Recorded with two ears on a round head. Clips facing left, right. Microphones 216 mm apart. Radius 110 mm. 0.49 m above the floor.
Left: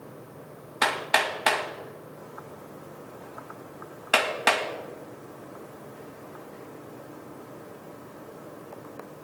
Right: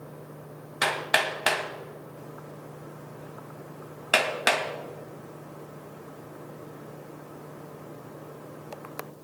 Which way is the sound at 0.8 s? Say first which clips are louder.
Left 1 dB; 15° right (ahead or behind).